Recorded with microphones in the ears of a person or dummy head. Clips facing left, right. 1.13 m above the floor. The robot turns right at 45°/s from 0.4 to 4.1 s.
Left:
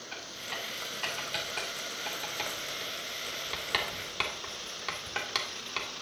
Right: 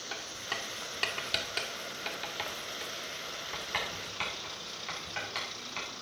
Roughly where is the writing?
Right.